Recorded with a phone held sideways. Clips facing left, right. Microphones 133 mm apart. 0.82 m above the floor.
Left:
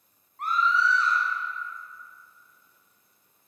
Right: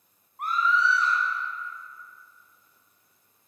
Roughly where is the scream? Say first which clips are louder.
Even; centre.